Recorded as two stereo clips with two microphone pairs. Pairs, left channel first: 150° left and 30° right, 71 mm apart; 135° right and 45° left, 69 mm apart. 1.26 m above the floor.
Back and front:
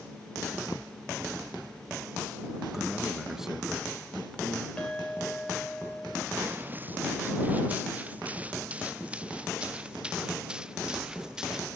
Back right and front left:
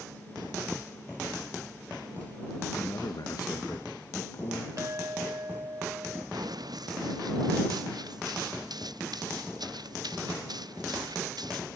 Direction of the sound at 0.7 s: 155° left.